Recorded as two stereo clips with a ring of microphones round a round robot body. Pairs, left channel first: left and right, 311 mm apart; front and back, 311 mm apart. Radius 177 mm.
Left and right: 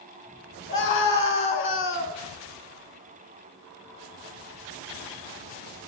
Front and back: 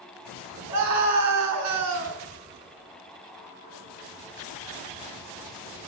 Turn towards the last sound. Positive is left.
turn(degrees=140)